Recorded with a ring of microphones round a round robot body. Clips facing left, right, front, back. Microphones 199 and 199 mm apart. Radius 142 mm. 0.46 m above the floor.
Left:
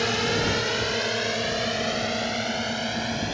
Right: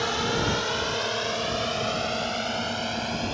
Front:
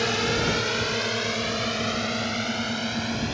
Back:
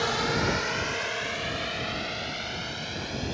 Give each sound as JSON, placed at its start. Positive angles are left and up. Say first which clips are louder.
{"t": 0.0, "sound": "a drone", "louder": "left 2 dB, front 3 dB", "azimuth_deg": 45}